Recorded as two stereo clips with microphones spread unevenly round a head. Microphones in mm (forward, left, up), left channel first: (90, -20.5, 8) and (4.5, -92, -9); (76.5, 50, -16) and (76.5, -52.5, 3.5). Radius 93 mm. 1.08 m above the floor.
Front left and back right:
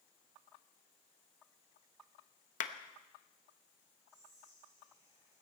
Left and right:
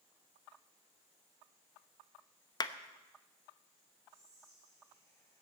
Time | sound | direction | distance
2.6 | a clap | 45° left | 1.0 m
4.1 | whispering | 170° left | 5.5 m